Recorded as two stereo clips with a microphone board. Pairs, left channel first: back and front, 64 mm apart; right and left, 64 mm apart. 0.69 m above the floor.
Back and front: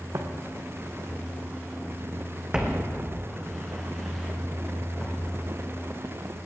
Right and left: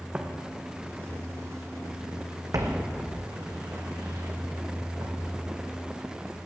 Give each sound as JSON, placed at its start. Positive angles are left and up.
{"t": 0.1, "sound": "footsteps", "azimuth_deg": 20, "distance_m": 1.7}